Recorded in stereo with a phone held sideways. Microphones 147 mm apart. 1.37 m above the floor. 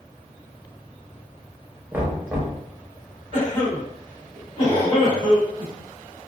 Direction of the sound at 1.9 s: 10° right (ahead or behind).